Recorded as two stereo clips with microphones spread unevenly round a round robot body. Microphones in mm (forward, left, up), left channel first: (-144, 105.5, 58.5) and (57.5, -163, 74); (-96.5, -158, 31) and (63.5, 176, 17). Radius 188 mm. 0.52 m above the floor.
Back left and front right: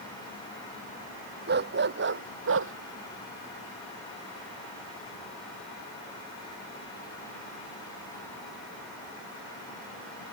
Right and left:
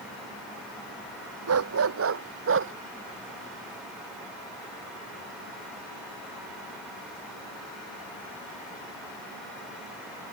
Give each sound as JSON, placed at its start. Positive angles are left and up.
{"t": 1.5, "sound": "a dog barking", "azimuth_deg": 10}